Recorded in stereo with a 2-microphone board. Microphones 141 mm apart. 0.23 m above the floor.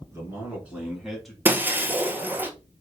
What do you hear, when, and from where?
0.1 s a man speaking: 20° right (ahead or behind), 2.5 m; by 1.4 s 5° left (ahead or behind), 1.6 m
1.4 s breaking glass: 15° right (ahead or behind), 0.8 m